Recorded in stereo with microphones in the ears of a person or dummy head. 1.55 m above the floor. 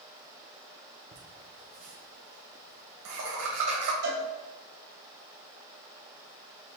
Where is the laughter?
75° right (ahead or behind), 1.0 m.